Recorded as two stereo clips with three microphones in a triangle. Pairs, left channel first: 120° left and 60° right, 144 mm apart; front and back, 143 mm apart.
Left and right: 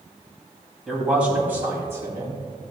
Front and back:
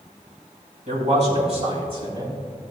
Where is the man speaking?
145° right, 3.5 m; by 2.4 s 125° right, 3 m.